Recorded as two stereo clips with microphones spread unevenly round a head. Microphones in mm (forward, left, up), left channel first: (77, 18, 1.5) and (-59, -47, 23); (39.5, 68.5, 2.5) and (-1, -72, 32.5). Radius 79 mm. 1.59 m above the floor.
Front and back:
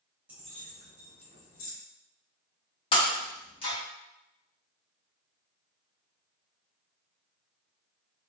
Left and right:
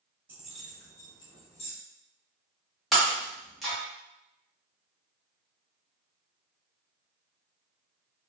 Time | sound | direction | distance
0.3 | keys jangling | 115° right | 0.6 m
2.9 | breaking glass | 30° right | 0.9 m